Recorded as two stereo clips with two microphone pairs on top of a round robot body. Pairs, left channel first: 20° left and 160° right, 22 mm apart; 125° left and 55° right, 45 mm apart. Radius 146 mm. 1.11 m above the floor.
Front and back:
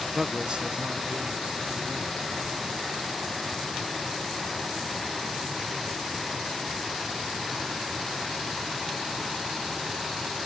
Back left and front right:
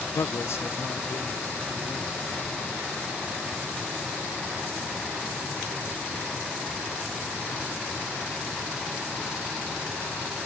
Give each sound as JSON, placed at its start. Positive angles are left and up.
{"t": 0.1, "sound": "a man speaking", "azimuth_deg": 120, "distance_m": 0.6}